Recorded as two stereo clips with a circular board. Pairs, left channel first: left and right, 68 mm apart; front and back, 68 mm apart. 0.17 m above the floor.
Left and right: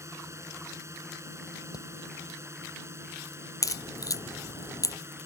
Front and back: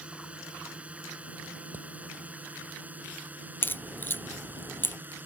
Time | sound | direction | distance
0.0 | a drone | 115° right | ?
1.7 | hammering | 115° left | ?
3.6 | a crack | 60° left | ?